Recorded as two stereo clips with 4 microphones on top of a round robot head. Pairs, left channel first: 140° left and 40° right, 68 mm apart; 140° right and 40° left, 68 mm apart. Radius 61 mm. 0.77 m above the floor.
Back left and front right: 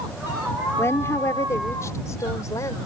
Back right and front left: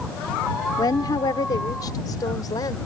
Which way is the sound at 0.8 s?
165° right.